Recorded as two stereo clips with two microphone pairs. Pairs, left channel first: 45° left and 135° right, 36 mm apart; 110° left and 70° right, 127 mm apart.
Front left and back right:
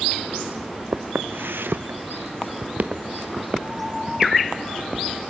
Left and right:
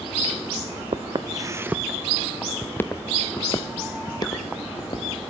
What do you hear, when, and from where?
0.9 s footsteps: 110° right, 1.0 m; by 5.2 s 160° left, 3 m